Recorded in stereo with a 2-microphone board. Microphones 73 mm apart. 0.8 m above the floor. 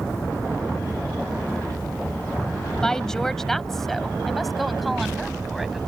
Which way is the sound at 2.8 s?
10° left (ahead or behind).